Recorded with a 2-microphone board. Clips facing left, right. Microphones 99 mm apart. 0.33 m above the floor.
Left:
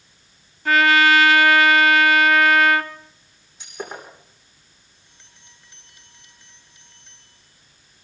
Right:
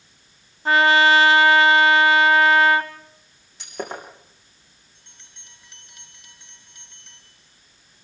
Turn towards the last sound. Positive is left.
turn(degrees=-75)  # may be behind; listen again after turning